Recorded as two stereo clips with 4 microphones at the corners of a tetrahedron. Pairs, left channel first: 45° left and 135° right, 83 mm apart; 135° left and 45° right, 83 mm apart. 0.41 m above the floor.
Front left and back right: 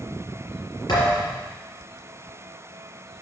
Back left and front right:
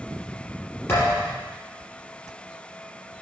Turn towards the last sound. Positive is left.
turn(degrees=75)